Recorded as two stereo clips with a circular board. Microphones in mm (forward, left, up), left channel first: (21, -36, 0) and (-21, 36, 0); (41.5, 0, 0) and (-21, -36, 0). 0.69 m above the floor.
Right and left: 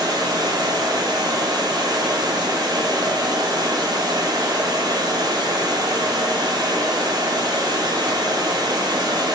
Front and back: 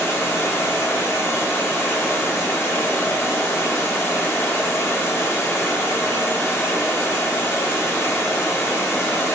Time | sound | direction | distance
0.0 | running water | 85° left | 0.8 m